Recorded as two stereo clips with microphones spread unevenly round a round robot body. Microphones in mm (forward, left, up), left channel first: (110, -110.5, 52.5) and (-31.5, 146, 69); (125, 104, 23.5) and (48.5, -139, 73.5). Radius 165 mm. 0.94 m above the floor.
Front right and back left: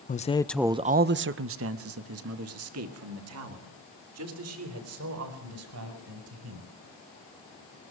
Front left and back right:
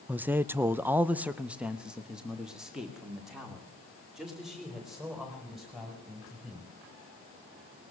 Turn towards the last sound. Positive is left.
turn(degrees=160)